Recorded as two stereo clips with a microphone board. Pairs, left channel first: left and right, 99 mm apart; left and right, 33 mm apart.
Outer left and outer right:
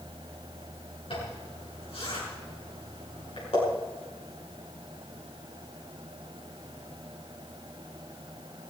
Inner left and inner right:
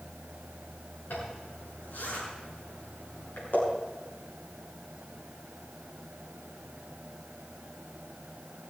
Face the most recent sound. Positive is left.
turn(degrees=75)  # may be behind; listen again after turning